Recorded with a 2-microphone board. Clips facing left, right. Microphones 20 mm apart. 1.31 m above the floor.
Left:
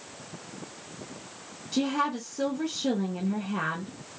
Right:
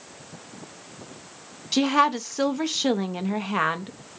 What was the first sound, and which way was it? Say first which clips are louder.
A woman speaking: right 7 dB; 50° right (ahead or behind).